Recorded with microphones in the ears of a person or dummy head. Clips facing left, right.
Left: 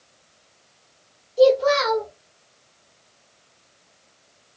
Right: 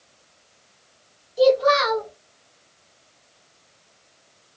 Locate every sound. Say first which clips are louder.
1.4 s a child speaking: left 1 dB; 5° left (ahead or behind), 0.8 m